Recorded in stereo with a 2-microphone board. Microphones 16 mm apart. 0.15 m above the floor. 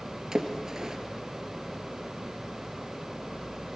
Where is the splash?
40° right (ahead or behind), 2.5 m.